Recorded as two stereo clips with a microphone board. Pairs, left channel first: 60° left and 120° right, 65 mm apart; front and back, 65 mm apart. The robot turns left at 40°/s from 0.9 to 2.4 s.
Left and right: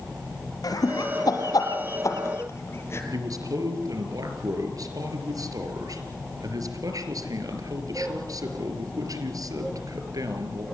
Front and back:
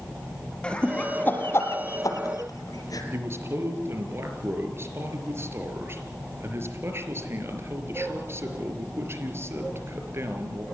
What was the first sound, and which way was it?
Laughter, 75° left.